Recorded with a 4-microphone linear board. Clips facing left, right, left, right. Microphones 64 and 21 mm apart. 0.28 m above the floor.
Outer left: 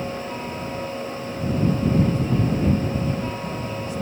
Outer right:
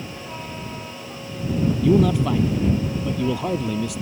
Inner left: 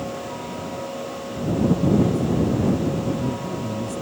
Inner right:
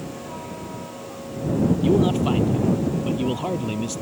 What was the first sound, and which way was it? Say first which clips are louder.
A man speaking: outer right 3 dB, inner right 1 dB; 80° right.